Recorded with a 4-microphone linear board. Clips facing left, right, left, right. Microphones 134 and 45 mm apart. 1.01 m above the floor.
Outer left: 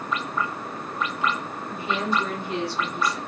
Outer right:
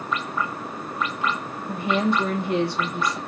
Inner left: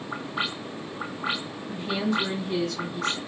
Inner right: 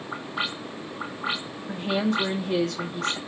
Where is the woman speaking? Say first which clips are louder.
Outer right 5 dB, inner right 2 dB; 60° right (ahead or behind), 0.8 m.